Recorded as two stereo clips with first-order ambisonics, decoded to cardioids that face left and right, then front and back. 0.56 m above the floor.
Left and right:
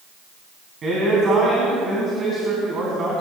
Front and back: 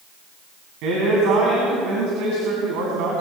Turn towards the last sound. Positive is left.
turn(degrees=-155)